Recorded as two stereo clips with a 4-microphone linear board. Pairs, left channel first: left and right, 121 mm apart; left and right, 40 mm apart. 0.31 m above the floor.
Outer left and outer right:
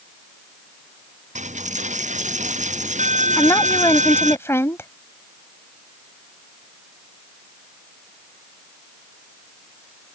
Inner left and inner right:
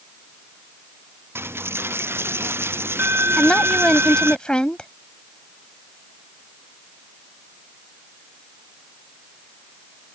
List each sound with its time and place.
1.4 s a dropped coin: 90° right
3.4 s a woman speaking: 20° left (ahead or behind)